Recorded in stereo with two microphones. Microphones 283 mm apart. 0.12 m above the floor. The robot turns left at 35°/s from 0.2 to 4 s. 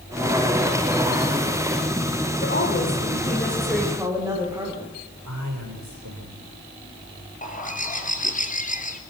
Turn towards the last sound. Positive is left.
turn(degrees=25)  # may be behind; listen again after turning